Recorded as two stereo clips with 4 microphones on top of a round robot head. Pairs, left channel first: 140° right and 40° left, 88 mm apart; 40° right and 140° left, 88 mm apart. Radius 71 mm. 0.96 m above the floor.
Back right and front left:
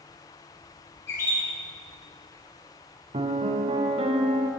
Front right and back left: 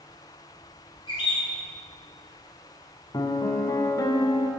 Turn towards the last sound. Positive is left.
turn(degrees=15)